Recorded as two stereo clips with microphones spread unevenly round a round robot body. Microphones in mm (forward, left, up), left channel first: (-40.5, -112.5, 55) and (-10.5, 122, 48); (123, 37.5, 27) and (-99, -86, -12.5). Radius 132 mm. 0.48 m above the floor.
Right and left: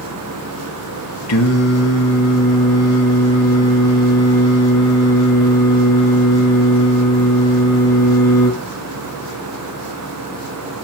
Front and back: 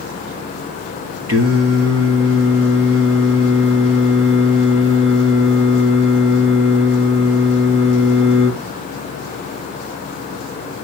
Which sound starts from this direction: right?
Singing, at 1.3 s.